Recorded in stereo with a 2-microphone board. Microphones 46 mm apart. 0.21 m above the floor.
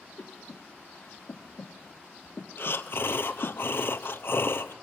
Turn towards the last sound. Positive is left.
turn(degrees=60)  # may be behind; listen again after turning